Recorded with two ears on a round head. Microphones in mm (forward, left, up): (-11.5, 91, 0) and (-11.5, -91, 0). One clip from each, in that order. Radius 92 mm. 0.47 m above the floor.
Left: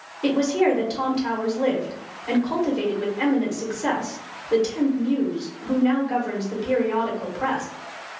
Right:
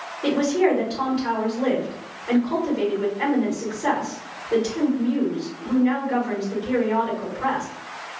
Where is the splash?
No splash in this recording.